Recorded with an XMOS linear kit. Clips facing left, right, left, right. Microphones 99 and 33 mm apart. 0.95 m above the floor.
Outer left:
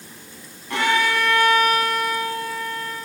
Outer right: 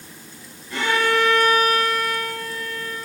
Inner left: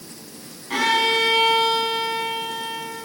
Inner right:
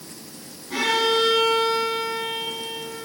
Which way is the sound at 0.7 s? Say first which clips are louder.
Even, inner left 2 dB; 70° left (ahead or behind).